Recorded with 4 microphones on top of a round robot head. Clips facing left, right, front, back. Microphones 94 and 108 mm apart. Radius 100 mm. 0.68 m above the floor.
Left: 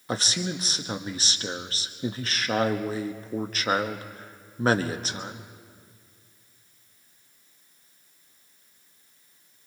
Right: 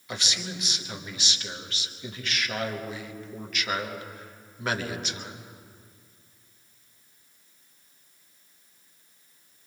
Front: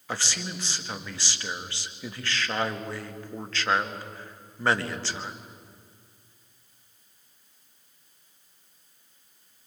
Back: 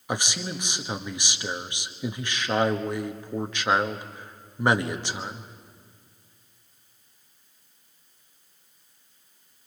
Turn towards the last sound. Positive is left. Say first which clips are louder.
# left 6 dB, back 3 dB
turn(degrees=115)